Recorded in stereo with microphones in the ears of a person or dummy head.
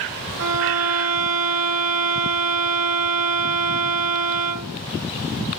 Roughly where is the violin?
Right.